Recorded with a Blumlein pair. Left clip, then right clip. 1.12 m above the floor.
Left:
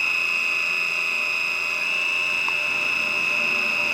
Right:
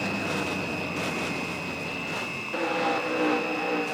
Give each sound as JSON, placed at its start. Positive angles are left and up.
{"t": 0.0, "sound": "a machine running", "azimuth_deg": 30}